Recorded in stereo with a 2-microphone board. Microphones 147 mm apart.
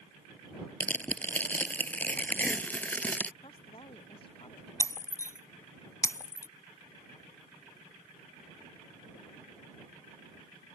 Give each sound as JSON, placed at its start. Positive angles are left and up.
{"t": 0.8, "sound": "tearing paper", "side_deg": 10}
{"t": 3.4, "sound": "a woman speaking", "side_deg": 40}
{"t": 4.8, "sound": "breaking glass", "side_deg": 25}